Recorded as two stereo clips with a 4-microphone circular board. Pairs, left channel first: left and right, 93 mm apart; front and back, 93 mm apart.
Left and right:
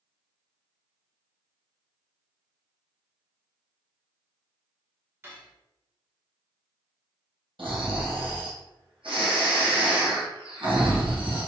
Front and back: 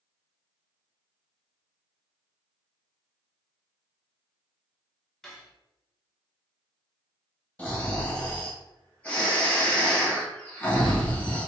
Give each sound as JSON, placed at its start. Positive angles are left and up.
{"t": 5.2, "sound": "cutlery clinking", "azimuth_deg": -80, "distance_m": 0.7}
{"t": 7.6, "sound": "snoring", "azimuth_deg": -75, "distance_m": 1.5}